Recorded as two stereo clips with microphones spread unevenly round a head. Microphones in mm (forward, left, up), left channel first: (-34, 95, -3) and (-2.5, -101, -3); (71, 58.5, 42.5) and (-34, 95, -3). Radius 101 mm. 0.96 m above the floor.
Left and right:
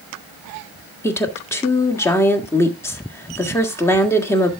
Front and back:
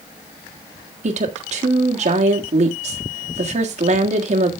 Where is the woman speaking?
175° left, 1.7 m.